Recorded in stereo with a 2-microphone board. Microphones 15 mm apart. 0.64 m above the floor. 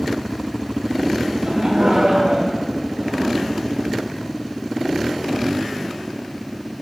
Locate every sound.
1.3 s laughter: 55° right (ahead or behind), 3.5 m; by 3.3 s 40° right (ahead or behind), 4 m